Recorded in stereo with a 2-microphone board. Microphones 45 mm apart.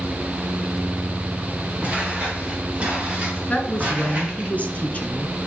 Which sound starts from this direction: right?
Footsteps, at 1.8 s.